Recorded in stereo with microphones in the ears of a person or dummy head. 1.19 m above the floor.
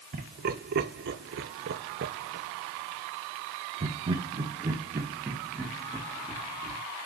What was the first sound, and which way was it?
Laughter, 45° right (ahead or behind).